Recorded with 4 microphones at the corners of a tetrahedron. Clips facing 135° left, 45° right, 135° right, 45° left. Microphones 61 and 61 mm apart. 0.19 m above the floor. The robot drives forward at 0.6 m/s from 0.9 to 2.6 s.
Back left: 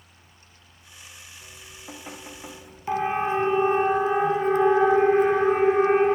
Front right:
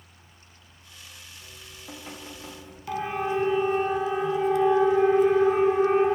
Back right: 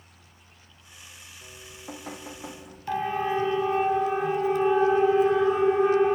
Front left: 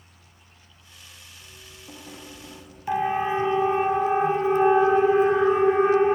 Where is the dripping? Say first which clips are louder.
Back left 1 dB, back right 5 dB; 145° right, 5.5 m; by 2.8 s 150° right, 6.5 m.